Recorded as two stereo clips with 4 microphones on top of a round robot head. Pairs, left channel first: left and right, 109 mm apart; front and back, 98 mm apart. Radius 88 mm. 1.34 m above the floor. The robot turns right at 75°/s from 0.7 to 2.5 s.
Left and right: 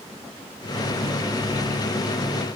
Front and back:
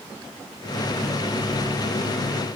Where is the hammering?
I don't hear hammering.